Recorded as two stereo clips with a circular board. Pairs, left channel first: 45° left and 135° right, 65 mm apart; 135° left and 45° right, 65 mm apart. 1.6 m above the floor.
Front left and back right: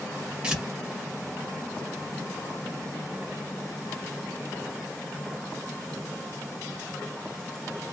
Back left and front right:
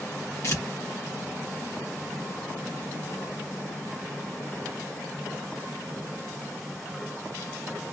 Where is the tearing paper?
155° left, 1.6 m.